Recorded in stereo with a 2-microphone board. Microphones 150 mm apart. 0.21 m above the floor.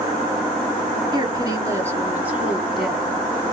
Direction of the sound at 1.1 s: 30° right (ahead or behind).